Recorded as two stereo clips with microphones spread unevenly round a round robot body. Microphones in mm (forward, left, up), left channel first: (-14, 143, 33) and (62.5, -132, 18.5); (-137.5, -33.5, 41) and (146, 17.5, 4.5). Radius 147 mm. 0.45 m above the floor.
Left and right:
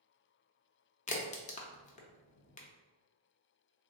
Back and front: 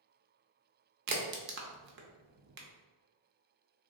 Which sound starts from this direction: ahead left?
A crack, at 1.1 s.